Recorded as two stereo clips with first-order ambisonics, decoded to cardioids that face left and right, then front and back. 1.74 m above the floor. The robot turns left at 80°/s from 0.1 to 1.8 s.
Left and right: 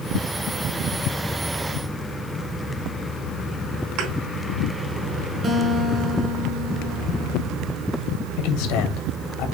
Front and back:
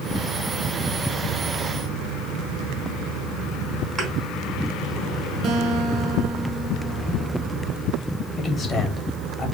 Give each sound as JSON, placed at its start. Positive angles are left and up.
{"t": 4.0, "sound": "a thud", "azimuth_deg": -105, "distance_m": 3.5}
{"t": 5.4, "sound": "a guitar", "azimuth_deg": -140, "distance_m": 1.8}
{"t": 8.4, "sound": "a man speaking", "azimuth_deg": 65, "distance_m": 2.0}